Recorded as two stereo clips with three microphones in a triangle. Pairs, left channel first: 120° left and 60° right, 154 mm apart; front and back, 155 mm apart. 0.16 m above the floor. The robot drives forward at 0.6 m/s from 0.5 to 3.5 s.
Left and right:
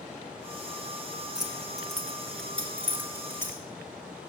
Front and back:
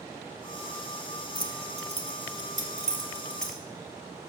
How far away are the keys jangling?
About 1.4 m.